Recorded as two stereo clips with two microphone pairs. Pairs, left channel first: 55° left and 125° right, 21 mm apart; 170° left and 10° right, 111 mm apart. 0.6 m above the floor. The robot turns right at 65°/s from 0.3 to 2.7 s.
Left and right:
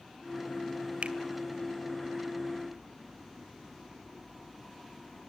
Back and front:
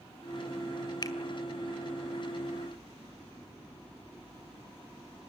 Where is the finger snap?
135° right, 1.8 m; by 1.2 s 125° right, 1.8 m.